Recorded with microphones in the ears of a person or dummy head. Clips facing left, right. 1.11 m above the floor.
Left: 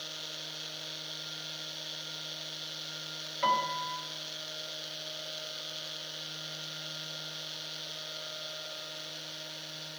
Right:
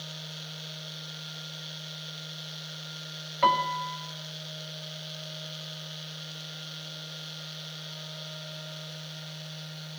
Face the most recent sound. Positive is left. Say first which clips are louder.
# right 5 dB
turn(degrees=-50)  # may be behind; listen again after turning